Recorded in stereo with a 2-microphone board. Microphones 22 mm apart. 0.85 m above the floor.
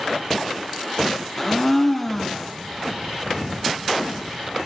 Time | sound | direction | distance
1.4 | a blender | 10° left (ahead or behind) | 0.9 m